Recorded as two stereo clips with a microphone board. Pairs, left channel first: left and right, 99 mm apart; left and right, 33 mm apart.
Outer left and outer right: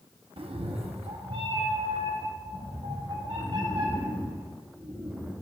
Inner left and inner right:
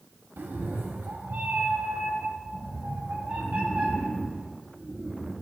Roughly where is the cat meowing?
Right.